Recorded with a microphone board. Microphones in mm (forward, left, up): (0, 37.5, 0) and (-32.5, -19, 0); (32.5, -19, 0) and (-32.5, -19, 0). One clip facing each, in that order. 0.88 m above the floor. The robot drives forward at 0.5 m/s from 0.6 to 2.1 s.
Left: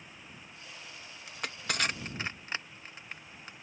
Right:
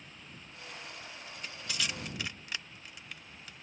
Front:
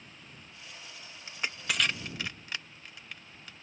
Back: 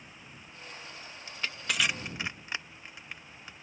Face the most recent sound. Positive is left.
turn(degrees=115)